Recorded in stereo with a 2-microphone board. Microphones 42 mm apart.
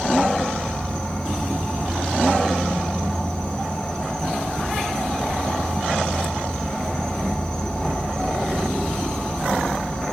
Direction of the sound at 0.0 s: 15° left (ahead or behind).